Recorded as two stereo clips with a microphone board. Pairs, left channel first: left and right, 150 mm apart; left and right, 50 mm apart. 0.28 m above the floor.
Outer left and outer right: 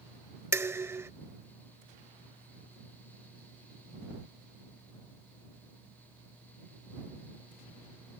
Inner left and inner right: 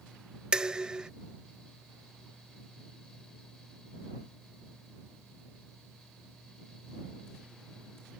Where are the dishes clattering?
15° right (ahead or behind).